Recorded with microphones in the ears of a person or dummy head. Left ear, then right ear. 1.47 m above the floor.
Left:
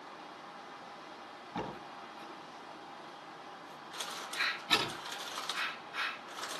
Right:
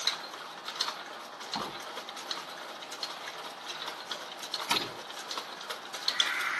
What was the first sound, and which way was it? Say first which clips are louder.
A door slam: right 4 dB; 60° right (ahead or behind).